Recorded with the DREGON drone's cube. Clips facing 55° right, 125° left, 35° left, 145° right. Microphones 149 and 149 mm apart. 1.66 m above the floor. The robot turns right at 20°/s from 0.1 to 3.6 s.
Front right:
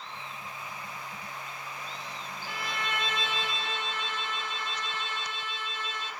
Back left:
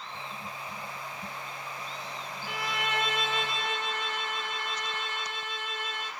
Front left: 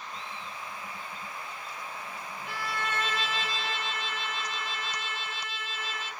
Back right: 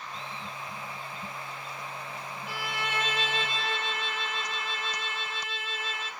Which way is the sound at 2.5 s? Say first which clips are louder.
Back left 3 dB, front left 1 dB; 70° left.